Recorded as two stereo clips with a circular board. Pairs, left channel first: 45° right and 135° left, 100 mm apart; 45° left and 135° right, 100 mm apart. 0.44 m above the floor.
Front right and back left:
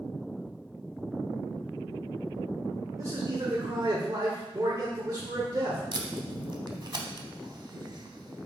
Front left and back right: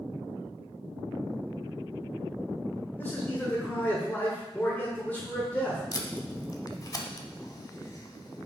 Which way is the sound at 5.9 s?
95° left.